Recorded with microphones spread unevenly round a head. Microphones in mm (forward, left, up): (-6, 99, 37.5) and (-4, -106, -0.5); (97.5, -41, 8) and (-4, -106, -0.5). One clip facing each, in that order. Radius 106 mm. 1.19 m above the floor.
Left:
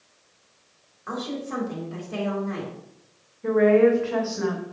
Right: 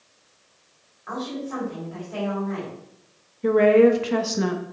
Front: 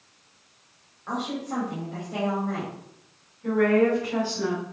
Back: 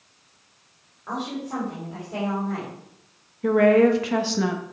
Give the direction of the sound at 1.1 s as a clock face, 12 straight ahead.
8 o'clock.